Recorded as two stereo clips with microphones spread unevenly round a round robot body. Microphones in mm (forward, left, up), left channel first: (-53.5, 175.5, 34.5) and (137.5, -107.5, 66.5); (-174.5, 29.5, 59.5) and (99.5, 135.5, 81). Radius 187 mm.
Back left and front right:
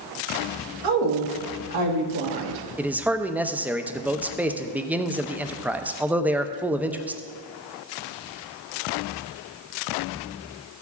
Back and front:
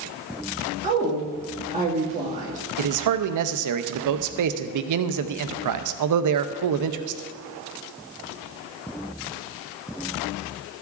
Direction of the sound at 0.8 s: 45° right.